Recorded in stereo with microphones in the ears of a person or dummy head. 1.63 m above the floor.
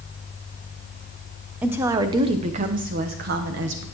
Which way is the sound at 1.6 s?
10° right (ahead or behind).